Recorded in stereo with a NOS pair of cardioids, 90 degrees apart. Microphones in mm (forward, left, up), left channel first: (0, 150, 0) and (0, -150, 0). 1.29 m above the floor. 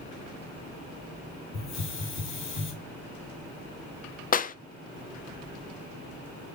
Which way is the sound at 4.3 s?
30° left.